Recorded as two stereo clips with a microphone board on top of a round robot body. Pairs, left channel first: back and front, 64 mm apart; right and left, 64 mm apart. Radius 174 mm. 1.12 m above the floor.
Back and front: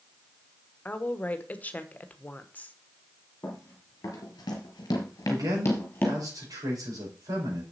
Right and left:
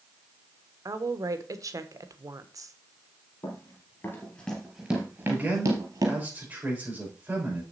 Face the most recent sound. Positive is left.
turn(degrees=20)